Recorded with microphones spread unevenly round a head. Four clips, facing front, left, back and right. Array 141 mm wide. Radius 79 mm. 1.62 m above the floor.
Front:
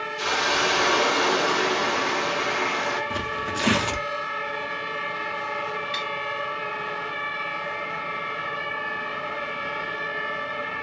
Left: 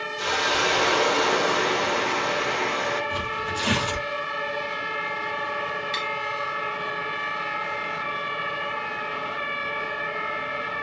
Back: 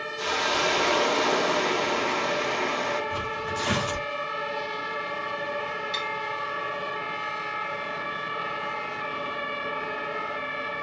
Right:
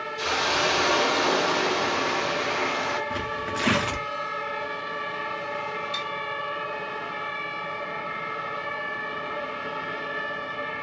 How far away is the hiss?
About 1.3 m.